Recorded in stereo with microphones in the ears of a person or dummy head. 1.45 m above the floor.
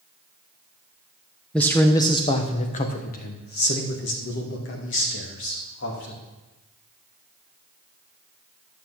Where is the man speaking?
10° left (ahead or behind), 0.9 m; by 6.2 s 70° left (ahead or behind), 2.5 m.